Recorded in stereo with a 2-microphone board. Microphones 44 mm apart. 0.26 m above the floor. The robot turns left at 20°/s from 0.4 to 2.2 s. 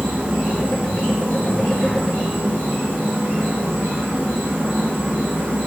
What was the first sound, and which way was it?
An insect, 30° right.